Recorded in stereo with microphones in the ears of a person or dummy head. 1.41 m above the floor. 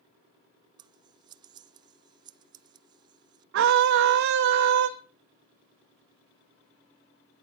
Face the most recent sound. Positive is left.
turn(degrees=-65)  # may be behind; listen again after turning